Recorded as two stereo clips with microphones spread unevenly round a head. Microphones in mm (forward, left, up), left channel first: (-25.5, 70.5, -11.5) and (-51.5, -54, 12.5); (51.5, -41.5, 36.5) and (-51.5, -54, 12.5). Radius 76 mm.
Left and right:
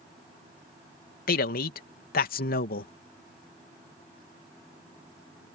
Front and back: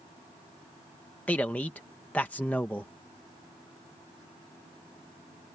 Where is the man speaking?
85° left.